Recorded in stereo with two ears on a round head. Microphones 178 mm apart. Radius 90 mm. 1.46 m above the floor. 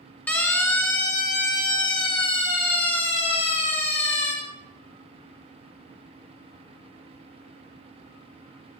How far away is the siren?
About 4 m.